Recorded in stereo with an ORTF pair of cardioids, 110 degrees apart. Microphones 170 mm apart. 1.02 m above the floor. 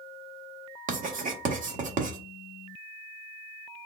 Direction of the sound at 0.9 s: 55° right.